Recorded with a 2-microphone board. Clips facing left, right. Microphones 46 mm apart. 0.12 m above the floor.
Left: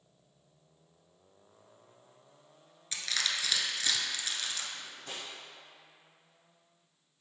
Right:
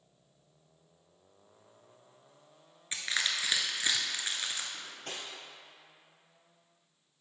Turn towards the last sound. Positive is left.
turn(degrees=-65)  # may be behind; listen again after turning